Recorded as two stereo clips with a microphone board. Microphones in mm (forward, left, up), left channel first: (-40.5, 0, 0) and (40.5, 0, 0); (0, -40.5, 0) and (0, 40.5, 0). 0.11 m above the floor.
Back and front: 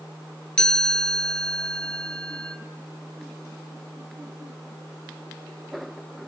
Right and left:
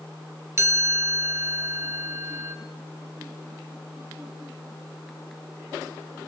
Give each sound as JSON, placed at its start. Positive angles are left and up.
{"t": 0.6, "sound": "a chime", "azimuth_deg": 110, "distance_m": 1.5}